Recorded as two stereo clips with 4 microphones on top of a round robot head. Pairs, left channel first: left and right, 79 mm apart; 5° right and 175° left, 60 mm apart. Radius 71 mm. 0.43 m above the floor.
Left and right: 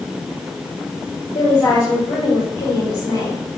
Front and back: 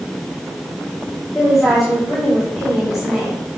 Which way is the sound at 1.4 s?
90° left.